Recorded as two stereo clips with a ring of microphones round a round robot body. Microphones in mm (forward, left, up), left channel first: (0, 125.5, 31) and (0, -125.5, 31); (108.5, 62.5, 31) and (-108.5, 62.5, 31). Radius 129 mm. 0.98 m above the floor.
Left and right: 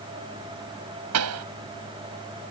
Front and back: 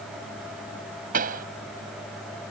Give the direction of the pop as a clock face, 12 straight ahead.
4 o'clock.